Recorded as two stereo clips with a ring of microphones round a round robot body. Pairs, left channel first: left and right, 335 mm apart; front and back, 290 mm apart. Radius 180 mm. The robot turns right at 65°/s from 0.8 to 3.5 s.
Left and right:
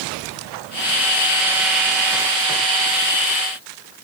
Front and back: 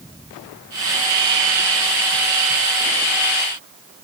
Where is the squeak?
I don't hear a squeak.